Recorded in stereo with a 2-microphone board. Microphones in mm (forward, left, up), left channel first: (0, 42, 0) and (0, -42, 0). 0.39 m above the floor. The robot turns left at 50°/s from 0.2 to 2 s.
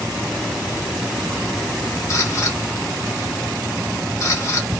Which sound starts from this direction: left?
A camera shutter, at 2.1 s.